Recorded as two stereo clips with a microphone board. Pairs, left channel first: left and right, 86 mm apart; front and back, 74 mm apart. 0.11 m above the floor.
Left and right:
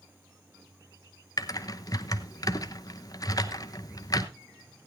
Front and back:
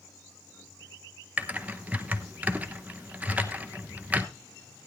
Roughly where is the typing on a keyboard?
Behind left.